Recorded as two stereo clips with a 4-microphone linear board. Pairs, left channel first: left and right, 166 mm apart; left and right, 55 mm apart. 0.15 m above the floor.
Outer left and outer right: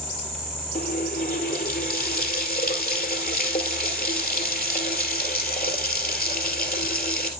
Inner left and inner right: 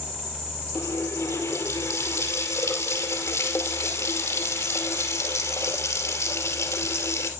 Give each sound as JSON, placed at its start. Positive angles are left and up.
{"t": 0.8, "sound": "a running tap", "side_deg": 65, "distance_m": 2.0}